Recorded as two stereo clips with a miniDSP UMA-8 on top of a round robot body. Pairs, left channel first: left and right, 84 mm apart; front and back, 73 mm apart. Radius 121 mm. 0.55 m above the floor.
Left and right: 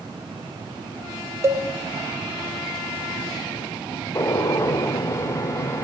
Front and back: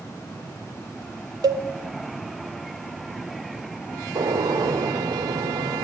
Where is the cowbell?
150° right, 1.0 m.